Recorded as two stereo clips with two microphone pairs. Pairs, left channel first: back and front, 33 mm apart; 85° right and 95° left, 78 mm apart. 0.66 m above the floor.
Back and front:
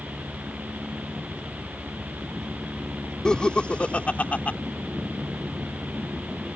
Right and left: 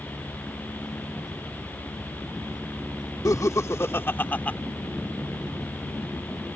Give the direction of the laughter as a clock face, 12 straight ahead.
4 o'clock.